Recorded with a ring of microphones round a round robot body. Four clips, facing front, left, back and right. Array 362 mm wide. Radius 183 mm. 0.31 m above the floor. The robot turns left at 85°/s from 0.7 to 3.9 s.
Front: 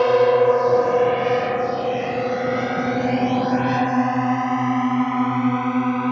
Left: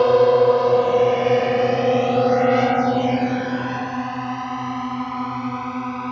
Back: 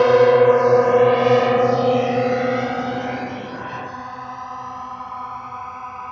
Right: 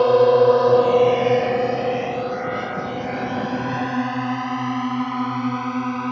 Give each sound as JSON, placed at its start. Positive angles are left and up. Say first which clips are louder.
{"t": 0.0, "sound": "a drone", "louder": "even, back 3 dB", "azimuth_deg": 175}